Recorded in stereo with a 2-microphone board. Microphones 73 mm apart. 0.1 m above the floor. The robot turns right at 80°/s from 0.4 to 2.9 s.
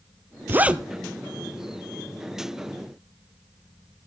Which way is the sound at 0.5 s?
30° right (ahead or behind).